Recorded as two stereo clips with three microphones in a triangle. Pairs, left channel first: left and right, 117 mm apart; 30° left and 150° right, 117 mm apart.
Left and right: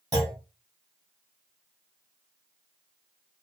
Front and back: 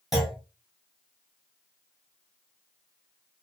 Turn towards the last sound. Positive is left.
turn(degrees=-65)